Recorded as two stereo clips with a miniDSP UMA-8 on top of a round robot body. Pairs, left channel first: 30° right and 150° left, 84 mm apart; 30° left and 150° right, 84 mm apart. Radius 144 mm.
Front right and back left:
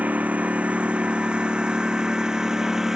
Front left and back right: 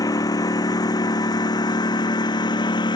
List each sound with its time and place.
0.0 s a lawn mower: 75° left; by 3.0 s 65° left